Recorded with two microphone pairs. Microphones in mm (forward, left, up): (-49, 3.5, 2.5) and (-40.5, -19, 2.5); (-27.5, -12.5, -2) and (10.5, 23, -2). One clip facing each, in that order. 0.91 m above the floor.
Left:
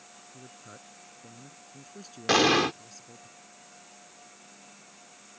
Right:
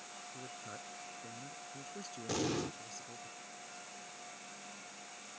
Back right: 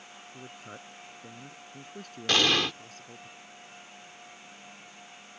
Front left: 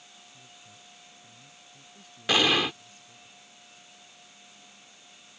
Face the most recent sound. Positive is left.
turn(degrees=120)